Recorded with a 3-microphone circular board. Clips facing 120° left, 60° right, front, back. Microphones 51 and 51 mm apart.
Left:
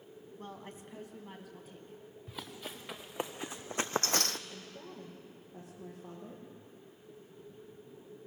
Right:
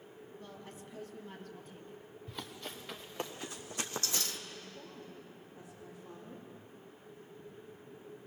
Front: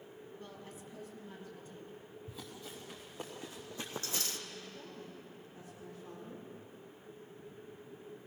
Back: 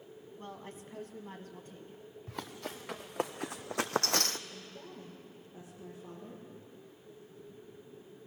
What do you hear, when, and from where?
0.4 s a woman speaking: 140° left, 1.4 m; by 2.0 s 140° right, 1.7 m
2.3 s running footsteps: 155° right, 2.0 m; by 4.4 s 140° left, 0.7 m
4.5 s a woman speaking: 105° left, 9 m